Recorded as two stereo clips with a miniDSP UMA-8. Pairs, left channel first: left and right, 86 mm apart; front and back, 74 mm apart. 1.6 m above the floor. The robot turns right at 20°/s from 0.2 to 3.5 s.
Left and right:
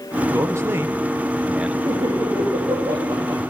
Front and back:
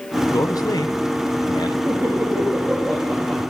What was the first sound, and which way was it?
A man speaking, 40° right.